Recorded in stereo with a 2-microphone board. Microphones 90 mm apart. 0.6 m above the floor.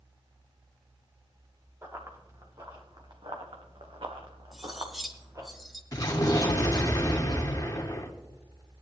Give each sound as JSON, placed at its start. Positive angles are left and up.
{"t": 1.8, "sound": "running footsteps", "side_deg": -35, "distance_m": 3.0}
{"t": 4.5, "sound": "cutlery clinking", "side_deg": 0, "distance_m": 1.6}
{"t": 5.9, "sound": "an explosion", "side_deg": 40, "distance_m": 1.5}